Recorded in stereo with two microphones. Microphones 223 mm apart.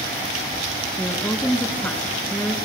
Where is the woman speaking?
5° left (ahead or behind), 1.4 m.